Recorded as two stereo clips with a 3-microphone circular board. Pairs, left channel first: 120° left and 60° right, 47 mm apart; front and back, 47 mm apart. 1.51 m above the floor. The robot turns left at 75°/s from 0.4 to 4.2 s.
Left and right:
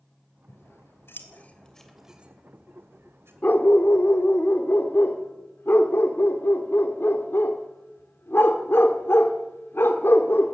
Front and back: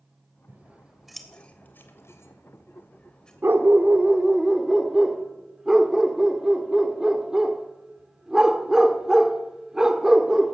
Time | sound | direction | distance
0.5 | scissors | 140° left | 3 m
3.4 | a dog barking | 160° left | 1.9 m